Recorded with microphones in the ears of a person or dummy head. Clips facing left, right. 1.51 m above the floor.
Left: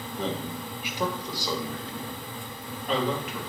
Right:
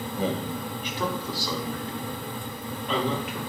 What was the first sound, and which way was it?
A man speaking, 10° right (ahead or behind).